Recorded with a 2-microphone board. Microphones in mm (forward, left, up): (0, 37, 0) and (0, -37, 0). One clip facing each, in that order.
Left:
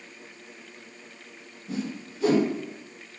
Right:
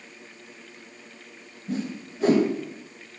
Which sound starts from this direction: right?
A whoosh, at 1.7 s.